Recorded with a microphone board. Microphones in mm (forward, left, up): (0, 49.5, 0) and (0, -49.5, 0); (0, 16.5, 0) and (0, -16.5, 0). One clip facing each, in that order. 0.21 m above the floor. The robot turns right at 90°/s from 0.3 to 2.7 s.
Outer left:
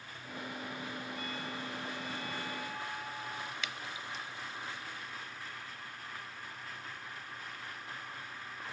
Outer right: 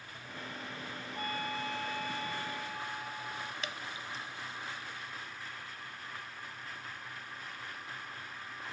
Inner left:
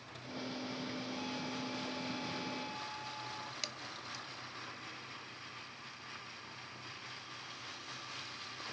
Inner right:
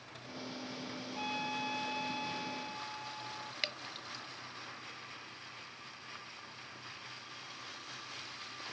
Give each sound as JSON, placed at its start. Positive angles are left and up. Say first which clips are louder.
{"t": 1.1, "sound": "a trumpet", "louder": "outer right 3 dB, inner right 3 dB", "azimuth_deg": -140}
{"t": 3.6, "sound": "dripping", "louder": "outer right 1 dB, inner right 4 dB", "side_deg": -40}